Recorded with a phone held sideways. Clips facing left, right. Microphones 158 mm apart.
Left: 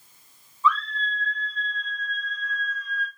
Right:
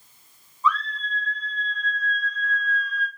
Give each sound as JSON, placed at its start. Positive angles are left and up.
{"t": 0.6, "sound": "a scream", "side_deg": -40, "distance_m": 5.0}